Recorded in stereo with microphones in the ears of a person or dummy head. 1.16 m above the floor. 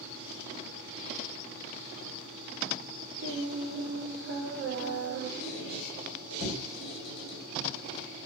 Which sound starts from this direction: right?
Singing, at 3.2 s.